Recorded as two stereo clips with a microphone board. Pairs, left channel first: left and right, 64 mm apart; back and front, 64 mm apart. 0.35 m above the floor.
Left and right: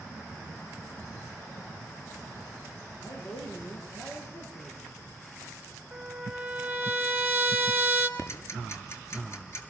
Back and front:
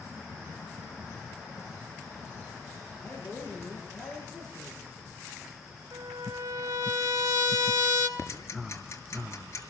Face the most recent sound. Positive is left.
turn(degrees=135)